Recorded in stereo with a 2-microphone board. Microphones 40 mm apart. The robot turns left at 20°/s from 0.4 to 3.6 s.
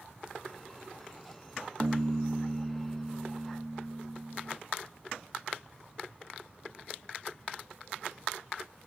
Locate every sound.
1.8 s a piano: 125° right; by 4.6 s 160° right